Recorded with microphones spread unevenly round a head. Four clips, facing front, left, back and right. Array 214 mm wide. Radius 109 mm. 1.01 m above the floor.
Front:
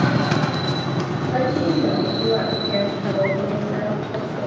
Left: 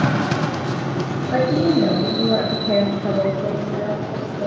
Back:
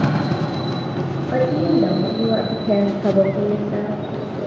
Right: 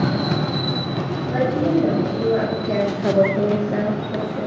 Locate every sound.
1.3 s a woman speaking: 120° left, 1.9 m; by 4.5 s 95° right, 1.7 m